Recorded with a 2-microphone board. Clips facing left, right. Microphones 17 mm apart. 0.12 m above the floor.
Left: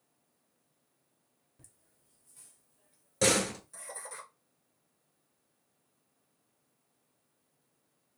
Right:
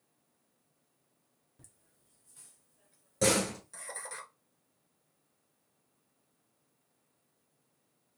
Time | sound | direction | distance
1.6 | laughter | 15° right (ahead or behind) | 1.4 m
3.2 | a door slam | 30° left (ahead or behind) | 1.0 m